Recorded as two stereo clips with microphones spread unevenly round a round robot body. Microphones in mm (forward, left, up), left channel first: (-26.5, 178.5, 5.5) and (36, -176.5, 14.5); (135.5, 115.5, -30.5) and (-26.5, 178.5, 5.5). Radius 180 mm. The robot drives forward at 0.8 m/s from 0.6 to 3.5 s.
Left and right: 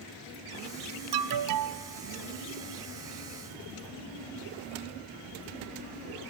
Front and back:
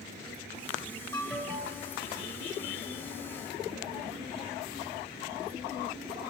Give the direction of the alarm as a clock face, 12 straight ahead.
3 o'clock.